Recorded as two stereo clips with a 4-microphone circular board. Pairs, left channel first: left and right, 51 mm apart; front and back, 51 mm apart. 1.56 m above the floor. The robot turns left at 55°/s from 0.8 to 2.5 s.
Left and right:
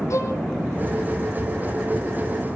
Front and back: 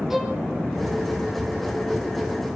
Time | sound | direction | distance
0.1 | a violin | 100° left | 4.5 m